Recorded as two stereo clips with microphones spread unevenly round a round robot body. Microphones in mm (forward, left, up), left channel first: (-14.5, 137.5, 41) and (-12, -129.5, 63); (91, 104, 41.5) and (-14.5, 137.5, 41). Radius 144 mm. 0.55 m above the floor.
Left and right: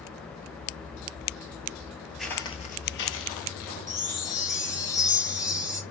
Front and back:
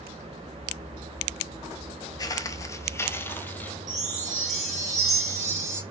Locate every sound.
2.2 s footsteps: 10° right, 0.6 m; by 3.8 s 55° left, 1.1 m
3.9 s a chime: 170° left, 2 m